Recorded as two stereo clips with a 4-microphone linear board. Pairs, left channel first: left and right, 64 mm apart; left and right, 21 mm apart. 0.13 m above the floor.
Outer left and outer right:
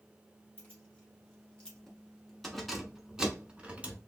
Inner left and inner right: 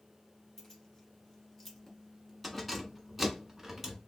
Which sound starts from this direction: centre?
Keys jangling, at 0.6 s.